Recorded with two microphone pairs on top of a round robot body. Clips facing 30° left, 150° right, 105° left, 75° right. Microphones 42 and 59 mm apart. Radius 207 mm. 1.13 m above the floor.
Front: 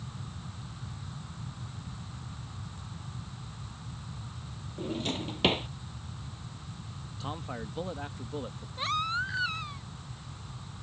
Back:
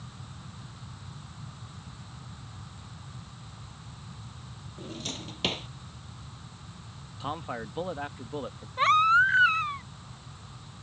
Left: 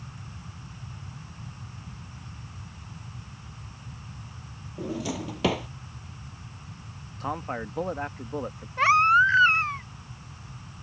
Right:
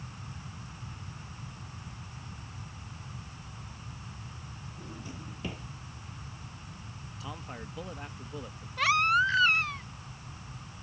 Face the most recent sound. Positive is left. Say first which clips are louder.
# back 11 dB, left 6 dB
turn(degrees=165)